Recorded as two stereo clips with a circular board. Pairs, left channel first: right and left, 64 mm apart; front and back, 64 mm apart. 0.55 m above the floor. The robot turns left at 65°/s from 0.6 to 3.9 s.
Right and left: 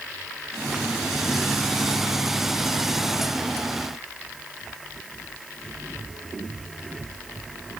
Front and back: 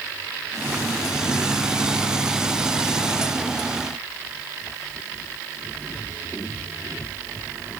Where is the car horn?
No car horn in this recording.